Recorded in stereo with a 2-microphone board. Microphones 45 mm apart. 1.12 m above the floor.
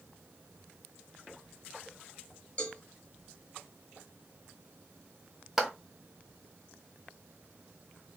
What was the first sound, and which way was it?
A cowbell, 25° left (ahead or behind).